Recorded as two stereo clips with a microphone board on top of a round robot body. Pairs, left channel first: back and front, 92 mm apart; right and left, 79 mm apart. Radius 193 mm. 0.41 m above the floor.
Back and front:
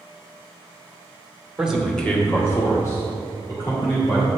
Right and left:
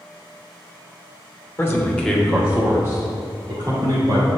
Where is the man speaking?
75° right, 1.5 m; by 4.3 s 135° left, 3.5 m.